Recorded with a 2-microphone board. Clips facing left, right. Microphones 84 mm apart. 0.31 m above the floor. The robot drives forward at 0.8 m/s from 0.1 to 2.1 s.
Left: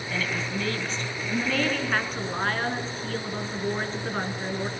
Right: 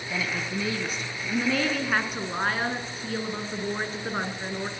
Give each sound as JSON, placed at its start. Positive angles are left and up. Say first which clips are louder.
{"t": 0.1, "sound": "a woman speaking", "louder": "even", "side_deg": -10, "distance_m": 2.5}